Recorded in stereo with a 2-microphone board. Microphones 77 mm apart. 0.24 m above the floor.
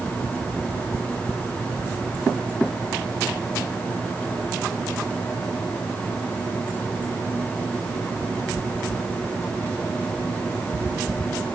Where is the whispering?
No whispering in this recording.